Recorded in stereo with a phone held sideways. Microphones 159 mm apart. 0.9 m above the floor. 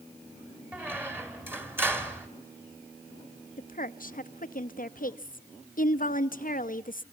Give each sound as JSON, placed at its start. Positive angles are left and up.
{"t": 0.7, "sound": "a squeak", "side_deg": -15, "distance_m": 1.9}
{"t": 3.6, "sound": "a woman speaking", "side_deg": 60, "distance_m": 0.8}